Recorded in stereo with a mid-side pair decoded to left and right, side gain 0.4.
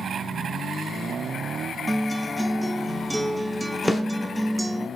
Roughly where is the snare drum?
Ahead.